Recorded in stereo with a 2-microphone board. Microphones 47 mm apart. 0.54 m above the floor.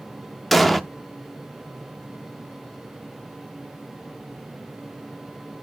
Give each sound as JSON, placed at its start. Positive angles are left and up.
{"t": 0.5, "sound": "an explosion", "side_deg": 5, "distance_m": 0.6}